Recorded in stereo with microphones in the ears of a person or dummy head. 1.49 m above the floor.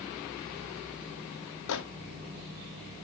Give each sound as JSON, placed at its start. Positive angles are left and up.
{"t": 1.7, "sound": "a microwave", "side_deg": 75, "distance_m": 0.6}